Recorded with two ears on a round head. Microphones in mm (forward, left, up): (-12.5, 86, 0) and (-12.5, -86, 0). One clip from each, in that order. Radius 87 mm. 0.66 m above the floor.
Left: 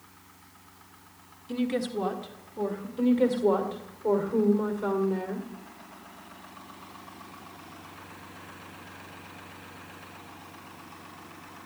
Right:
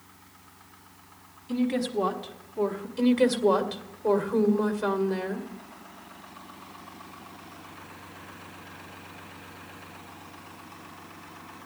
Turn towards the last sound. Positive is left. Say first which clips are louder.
# right 2 dB
turn(degrees=-45)  # may be behind; listen again after turning